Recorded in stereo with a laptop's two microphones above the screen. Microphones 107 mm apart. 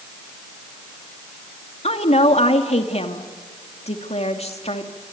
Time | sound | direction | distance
1.8 | a woman speaking | 75° left (ahead or behind) | 2.5 m